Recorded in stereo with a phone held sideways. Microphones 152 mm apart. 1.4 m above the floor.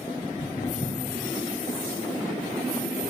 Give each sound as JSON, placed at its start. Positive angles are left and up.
{"t": 0.2, "sound": "footsteps", "side_deg": 60, "distance_m": 4.5}